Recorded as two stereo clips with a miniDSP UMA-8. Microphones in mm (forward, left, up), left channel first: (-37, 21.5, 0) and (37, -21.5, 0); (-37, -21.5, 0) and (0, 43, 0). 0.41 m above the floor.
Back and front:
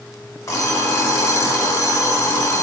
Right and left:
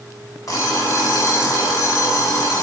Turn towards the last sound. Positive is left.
turn(degrees=-160)